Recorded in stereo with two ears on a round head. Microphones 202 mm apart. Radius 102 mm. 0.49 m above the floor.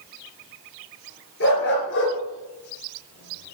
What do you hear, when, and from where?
1.4 s a dog barking: 50° left (ahead or behind), 3 m; by 3.5 s 70° left (ahead or behind), 1.1 m